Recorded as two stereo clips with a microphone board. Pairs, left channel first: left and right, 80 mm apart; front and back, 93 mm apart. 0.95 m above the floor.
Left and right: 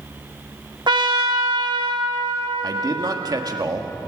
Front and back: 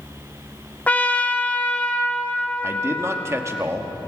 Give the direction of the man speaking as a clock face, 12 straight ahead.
4 o'clock.